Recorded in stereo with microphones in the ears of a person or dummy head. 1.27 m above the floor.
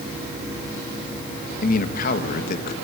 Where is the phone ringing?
I don't hear a phone ringing.